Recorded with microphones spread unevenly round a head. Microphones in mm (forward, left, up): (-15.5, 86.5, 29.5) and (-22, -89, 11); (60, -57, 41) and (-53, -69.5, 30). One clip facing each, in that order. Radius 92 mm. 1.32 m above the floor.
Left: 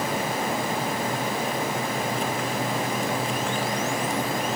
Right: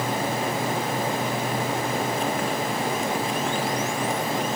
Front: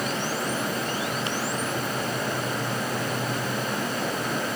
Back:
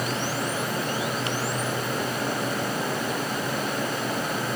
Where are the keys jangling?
No keys jangling in this recording.